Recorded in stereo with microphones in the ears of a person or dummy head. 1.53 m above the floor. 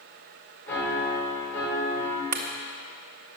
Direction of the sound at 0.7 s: 10° left (ahead or behind).